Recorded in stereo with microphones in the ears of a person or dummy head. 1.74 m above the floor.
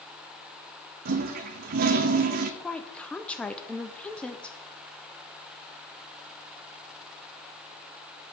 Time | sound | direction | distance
1.1 | a toilet flushing | 45° right (ahead or behind) | 0.6 m
2.6 | a woman speaking | 5° left (ahead or behind) | 0.6 m